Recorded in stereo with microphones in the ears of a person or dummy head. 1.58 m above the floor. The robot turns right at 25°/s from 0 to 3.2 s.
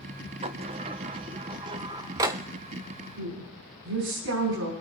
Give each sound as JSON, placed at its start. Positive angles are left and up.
{"t": 0.4, "sound": "a sliding door", "side_deg": -30, "distance_m": 0.6}
{"t": 3.2, "sound": "a woman speaking", "side_deg": -85, "distance_m": 4.0}